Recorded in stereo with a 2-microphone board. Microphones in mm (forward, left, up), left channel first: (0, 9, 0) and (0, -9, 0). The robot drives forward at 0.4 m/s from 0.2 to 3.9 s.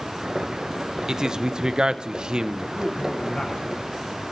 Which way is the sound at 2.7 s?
65° left (ahead or behind).